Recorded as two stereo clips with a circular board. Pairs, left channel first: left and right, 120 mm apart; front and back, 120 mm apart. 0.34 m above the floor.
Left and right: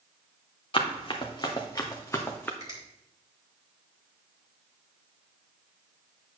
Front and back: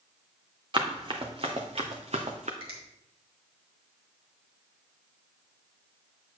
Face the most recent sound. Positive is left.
turn(degrees=-150)